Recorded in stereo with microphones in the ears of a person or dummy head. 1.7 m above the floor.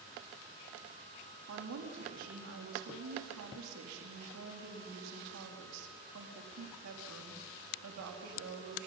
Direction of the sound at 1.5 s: 80° right.